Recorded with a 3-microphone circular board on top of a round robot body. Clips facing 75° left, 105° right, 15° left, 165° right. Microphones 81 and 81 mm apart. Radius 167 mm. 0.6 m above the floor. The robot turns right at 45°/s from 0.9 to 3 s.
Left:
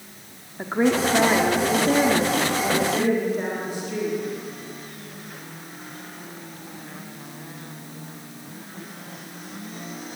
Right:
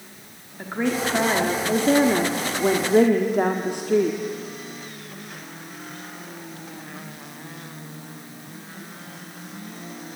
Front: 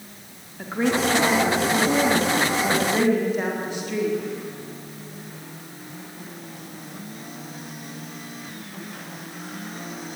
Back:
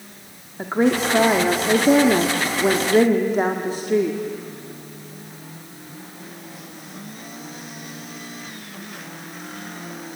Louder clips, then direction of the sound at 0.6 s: Left 4 dB, back 3 dB; 145° left.